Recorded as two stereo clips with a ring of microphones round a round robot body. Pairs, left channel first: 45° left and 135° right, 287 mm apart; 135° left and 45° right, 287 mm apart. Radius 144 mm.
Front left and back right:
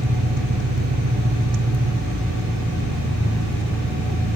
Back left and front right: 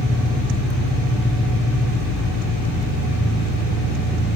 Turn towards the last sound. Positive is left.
turn(degrees=-105)